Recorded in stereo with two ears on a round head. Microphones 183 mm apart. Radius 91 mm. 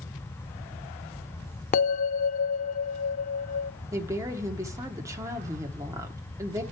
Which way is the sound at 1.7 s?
40° left (ahead or behind).